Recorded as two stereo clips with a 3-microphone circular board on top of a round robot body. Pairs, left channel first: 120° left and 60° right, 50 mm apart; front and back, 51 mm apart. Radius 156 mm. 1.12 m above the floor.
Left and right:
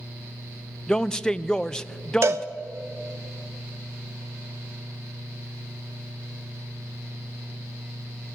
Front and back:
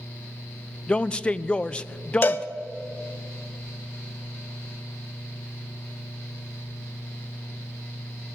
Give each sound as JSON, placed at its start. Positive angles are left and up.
{"t": 0.9, "sound": "a man speaking", "azimuth_deg": 55, "distance_m": 0.6}
{"t": 2.2, "sound": "a cowbell", "azimuth_deg": -50, "distance_m": 0.9}